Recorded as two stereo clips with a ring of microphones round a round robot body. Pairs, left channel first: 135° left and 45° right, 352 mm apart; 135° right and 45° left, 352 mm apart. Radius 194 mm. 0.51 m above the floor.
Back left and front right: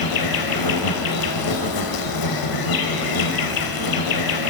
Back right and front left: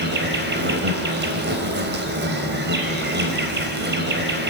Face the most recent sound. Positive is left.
turn(degrees=105)